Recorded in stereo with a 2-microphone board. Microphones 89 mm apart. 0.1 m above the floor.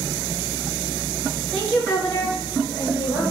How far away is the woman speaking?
About 1.1 m.